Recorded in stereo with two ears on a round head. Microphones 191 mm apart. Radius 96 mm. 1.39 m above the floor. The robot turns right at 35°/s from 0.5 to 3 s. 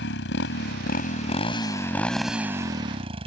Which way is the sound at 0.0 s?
120° left.